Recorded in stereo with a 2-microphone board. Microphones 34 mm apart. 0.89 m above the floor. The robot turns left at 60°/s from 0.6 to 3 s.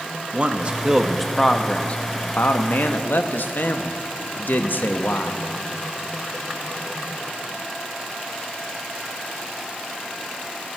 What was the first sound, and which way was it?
A man speaking, 145° right.